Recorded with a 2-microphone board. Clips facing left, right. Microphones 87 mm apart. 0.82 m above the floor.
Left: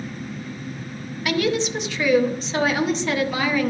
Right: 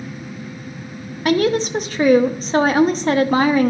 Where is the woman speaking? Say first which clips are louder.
Right 5 dB; 40° right (ahead or behind), 0.7 m.